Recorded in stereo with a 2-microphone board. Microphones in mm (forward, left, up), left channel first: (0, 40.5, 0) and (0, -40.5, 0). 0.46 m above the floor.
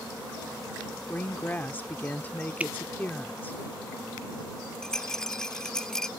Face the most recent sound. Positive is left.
turn(degrees=10)  # may be behind; listen again after turning